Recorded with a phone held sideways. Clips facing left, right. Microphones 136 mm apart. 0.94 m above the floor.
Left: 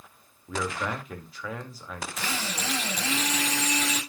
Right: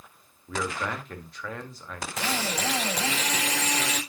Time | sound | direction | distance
0.5 | a man speaking | 5° left (ahead or behind) | 1.9 m
2.2 | a drill | 80° right | 3.5 m